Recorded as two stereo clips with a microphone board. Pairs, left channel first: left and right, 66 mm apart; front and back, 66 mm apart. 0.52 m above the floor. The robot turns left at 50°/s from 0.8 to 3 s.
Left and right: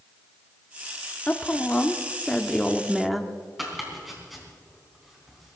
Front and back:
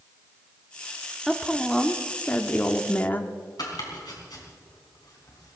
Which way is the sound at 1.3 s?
85° left.